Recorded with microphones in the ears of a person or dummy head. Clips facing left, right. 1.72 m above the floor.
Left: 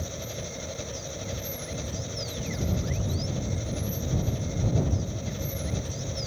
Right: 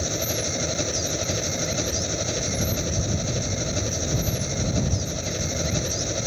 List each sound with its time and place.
0.0 s an engine running: 70° right (ahead or behind)